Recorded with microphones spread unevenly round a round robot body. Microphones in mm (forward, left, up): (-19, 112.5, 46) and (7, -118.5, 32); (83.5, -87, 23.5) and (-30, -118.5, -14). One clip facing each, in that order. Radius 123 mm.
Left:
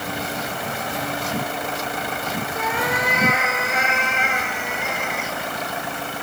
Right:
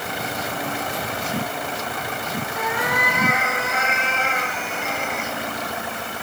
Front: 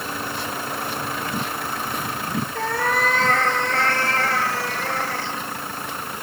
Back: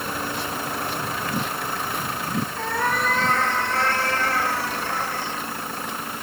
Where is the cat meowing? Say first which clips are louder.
Even, front 3 dB; 30° left, 5.5 m; by 5.3 s 10° left, 5 m.